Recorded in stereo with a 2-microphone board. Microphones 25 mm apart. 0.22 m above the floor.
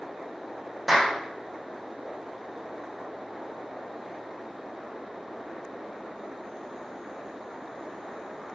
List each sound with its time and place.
0.9 s a clap: 5° right (ahead or behind), 7 m